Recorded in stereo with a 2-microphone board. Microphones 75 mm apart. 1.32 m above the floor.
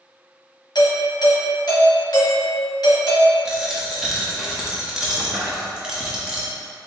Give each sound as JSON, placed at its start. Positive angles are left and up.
{"t": 0.8, "sound": "a doorbell", "side_deg": 60, "distance_m": 1.1}
{"t": 3.5, "sound": "a dropped coin", "side_deg": -5, "distance_m": 0.9}